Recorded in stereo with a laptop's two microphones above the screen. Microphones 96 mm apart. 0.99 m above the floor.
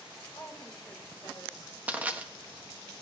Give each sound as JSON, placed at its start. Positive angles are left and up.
{"t": 0.3, "sound": "a woman speaking", "side_deg": 40, "distance_m": 3.5}
{"t": 1.9, "sound": "crushing", "side_deg": -15, "distance_m": 1.3}